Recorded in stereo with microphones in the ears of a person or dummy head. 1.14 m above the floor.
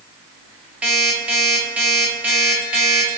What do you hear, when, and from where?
0.8 s an alarm clock: 5° right (ahead or behind), 1.4 m